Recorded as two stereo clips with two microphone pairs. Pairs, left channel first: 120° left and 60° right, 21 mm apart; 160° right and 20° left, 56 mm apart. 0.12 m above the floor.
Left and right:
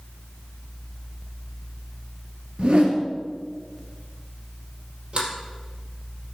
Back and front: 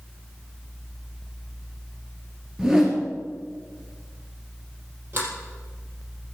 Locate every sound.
2.6 s a whoosh: 55° right, 2.5 m
5.1 s a sliding door: 30° right, 4.5 m